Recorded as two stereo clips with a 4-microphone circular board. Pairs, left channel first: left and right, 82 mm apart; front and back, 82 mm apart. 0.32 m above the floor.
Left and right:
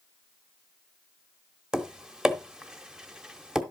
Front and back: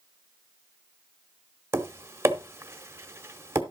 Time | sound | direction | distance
1.7 | tapping | 165° right | 1.0 m